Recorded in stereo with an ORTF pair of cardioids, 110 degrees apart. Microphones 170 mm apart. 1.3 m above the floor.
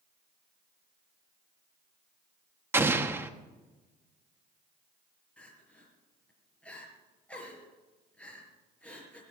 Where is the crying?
5° left, 4 m.